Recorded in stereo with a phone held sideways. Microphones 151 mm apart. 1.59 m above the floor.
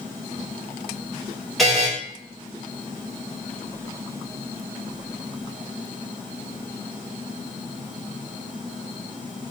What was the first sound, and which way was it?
A buzzer, centre (ahead or behind).